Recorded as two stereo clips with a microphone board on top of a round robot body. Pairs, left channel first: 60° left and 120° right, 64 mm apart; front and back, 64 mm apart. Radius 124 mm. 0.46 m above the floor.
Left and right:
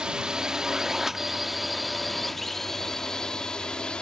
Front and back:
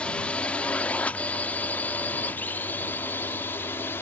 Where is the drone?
55° right; by 4.0 s 5° right.